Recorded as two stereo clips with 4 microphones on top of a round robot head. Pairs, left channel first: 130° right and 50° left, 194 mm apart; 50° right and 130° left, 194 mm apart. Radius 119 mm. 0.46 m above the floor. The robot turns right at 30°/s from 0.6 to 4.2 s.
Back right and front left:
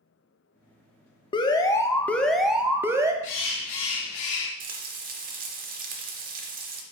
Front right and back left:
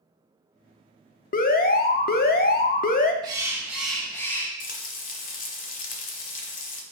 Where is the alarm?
75° right, 0.5 m; by 3.1 s 20° right, 0.5 m.